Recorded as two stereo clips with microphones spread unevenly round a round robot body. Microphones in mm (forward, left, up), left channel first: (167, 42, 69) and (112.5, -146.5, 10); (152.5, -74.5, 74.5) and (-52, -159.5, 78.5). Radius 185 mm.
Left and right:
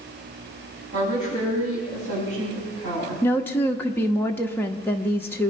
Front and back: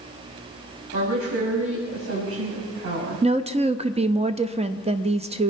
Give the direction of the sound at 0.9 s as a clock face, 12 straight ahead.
5 o'clock.